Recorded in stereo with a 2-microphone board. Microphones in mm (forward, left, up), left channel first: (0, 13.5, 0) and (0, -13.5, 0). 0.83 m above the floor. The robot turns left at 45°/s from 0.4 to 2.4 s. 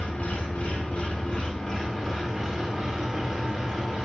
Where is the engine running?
70° left, 0.8 m; by 4.1 s 20° right, 0.8 m.